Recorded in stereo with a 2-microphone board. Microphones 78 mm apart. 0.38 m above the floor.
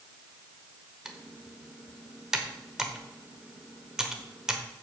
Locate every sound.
1.1 s typing on a keyboard: 10° right (ahead or behind), 1.0 m